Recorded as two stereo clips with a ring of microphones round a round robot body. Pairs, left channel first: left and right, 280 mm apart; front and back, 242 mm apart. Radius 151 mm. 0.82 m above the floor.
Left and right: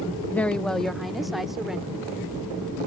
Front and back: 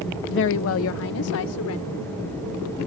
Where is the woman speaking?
10° left; by 2.1 s straight ahead.